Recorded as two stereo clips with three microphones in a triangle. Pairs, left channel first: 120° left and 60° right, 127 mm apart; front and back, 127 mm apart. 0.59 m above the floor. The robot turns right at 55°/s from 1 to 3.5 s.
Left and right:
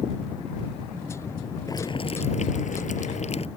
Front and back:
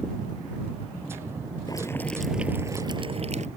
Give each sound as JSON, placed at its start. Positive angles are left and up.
{"t": 1.7, "sound": "boiling", "azimuth_deg": 60}